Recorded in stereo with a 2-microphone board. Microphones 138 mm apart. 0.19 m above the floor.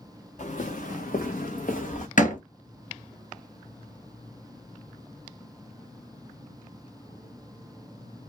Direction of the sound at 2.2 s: 70° left (ahead or behind).